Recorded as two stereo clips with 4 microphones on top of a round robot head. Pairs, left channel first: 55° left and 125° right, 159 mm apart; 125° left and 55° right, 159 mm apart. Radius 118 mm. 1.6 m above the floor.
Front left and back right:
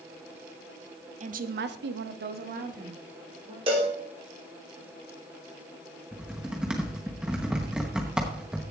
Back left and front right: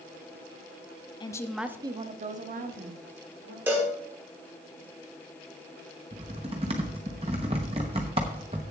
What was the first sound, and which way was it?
A woman speaking, 175° right.